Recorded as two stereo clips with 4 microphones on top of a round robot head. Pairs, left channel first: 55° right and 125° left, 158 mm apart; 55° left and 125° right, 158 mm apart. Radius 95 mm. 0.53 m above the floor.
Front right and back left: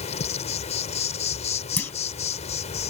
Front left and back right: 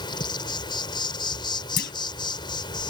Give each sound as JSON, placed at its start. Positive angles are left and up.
{"t": 0.0, "sound": "an insect", "azimuth_deg": -10}
{"t": 1.8, "sound": "a clunk", "azimuth_deg": 25}